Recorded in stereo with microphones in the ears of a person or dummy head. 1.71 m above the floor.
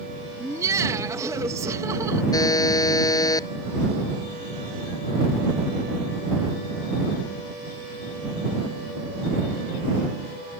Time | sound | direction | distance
0.4 | laughter | 20° right (ahead or behind) | ?
2.3 | a buzzer | 20° left (ahead or behind) | ?